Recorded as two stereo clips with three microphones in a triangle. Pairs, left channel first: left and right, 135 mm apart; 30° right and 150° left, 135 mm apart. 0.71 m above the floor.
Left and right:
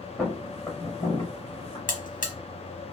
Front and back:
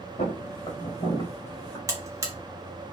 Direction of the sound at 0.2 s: 10° left.